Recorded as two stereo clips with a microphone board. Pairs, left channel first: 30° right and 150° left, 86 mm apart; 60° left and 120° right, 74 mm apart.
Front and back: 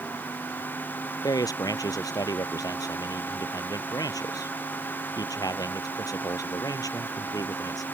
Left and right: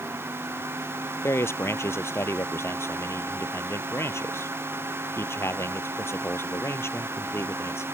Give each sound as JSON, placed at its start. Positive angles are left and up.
{"t": 1.2, "sound": "a man speaking", "azimuth_deg": 10}